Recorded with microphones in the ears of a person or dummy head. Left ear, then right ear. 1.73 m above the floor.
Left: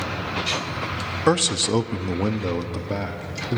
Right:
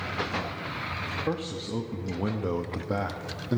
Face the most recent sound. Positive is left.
turn(degrees=-30)  # may be behind; listen again after turning